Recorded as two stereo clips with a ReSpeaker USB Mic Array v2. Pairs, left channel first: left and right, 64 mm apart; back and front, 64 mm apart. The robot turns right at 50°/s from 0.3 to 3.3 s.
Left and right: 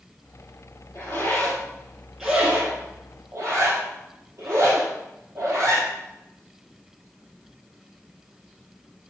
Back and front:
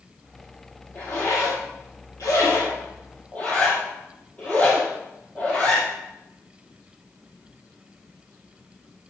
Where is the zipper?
130° left, 4 m; by 5.9 s 115° right, 4 m.